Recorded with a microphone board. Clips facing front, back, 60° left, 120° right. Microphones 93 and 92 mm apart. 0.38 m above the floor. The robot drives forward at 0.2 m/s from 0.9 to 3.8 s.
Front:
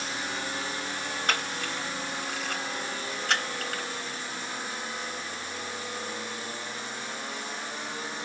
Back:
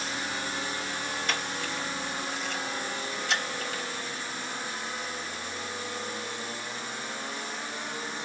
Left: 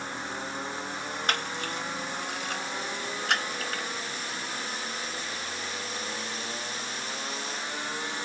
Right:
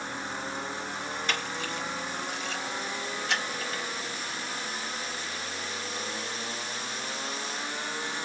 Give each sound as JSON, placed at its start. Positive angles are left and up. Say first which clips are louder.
{"t": 1.3, "sound": "a camera shutter", "louder": "front 1 dB, left 3 dB", "azimuth_deg": 30, "distance_m": 2.5}